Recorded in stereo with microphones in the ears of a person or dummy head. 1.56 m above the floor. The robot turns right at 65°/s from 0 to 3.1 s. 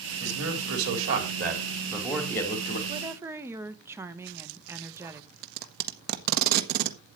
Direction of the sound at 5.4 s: 55° right (ahead or behind).